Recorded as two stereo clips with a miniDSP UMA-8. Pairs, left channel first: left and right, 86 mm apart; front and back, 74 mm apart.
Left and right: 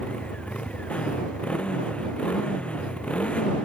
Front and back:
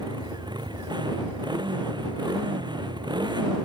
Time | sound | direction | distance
0.0 | a motorcycle | 165° left | ?